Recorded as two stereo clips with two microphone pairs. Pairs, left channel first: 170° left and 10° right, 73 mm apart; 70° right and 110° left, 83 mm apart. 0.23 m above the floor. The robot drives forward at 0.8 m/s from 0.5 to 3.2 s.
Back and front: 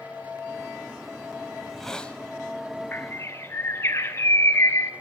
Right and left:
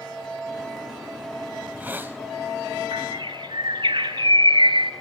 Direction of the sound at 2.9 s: 110° left.